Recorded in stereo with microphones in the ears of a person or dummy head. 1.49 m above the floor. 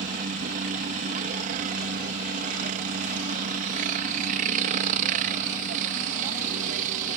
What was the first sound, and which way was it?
A helicopter, 45° right (ahead or behind).